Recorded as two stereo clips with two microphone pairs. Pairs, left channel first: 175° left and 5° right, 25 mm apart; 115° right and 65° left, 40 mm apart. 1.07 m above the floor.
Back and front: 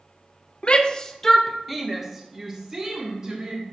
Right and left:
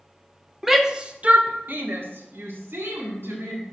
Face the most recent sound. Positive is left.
turn(degrees=60)